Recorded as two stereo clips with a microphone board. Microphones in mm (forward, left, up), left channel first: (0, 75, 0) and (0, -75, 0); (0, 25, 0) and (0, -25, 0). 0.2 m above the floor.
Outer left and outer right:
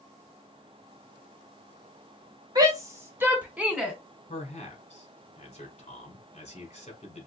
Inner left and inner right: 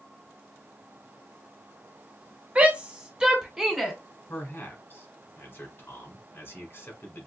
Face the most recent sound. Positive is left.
turn(degrees=50)  # may be behind; listen again after turning